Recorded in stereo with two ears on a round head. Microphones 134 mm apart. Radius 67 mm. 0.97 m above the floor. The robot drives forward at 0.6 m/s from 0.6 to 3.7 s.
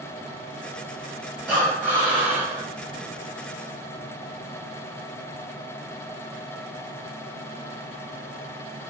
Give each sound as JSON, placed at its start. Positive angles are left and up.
{"t": 1.5, "sound": "breathing", "side_deg": -10, "distance_m": 1.4}